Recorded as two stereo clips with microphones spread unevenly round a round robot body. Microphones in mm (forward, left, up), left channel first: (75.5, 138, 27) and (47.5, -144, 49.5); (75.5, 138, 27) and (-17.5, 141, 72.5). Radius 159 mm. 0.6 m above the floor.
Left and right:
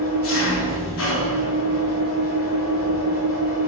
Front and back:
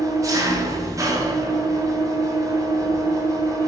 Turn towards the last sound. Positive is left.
turn(degrees=135)